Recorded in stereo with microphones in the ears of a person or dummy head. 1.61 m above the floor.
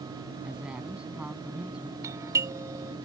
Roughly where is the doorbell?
Centre.